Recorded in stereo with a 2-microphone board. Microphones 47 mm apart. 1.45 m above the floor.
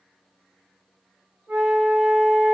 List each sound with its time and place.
1.5 s a flute: 80° right, 1.2 m